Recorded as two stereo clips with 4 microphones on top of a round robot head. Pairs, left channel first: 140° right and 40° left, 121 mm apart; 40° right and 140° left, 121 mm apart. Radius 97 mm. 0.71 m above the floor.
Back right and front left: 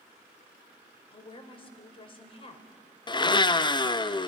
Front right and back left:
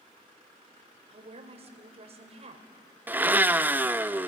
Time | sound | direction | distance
1.1 | a woman speaking | 175° left | 2.5 m
3.1 | a blender | 155° right | 0.8 m